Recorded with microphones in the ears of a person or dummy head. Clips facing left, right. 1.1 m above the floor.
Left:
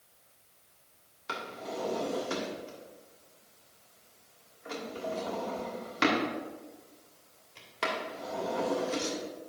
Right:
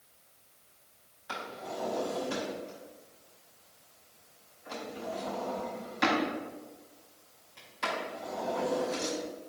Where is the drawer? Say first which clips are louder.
Left 1 dB; 70° left (ahead or behind), 2.5 m.